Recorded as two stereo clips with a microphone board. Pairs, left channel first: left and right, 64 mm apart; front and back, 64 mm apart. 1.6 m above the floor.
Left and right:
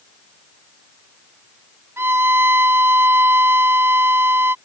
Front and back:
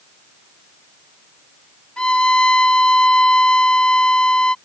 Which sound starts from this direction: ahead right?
A violin, at 2.0 s.